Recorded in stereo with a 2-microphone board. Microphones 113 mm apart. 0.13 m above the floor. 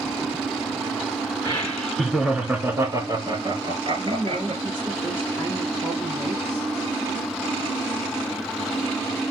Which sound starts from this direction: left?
Laughter, at 1.4 s.